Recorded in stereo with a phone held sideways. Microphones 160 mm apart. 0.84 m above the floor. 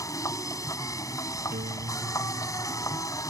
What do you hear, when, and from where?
0.0 s a machine running: 20° left (ahead or behind)
1.5 s a guitar: 80° right